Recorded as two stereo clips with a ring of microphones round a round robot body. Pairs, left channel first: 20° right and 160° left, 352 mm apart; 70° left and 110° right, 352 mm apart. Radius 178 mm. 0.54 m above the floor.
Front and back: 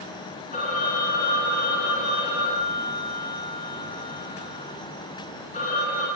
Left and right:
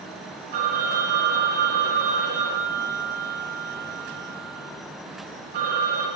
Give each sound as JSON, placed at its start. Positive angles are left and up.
{"t": 0.5, "sound": "a phone ringing", "azimuth_deg": -90, "distance_m": 5.0}